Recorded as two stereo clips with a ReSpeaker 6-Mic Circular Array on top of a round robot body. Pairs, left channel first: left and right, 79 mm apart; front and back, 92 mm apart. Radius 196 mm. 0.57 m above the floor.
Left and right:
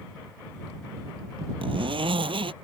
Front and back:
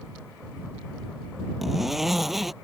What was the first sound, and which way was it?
A zipper, 95° right.